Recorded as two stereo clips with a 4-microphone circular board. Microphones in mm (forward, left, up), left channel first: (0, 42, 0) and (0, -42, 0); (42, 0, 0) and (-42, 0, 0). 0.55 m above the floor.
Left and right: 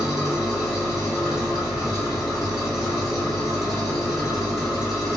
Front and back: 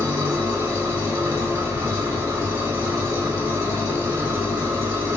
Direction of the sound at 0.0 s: 170° right.